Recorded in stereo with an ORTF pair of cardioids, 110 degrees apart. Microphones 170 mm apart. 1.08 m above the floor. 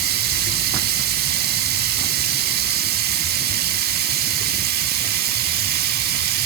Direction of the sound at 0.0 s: 70° right.